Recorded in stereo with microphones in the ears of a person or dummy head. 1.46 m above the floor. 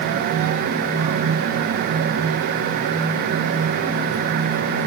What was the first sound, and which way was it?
Only background noise.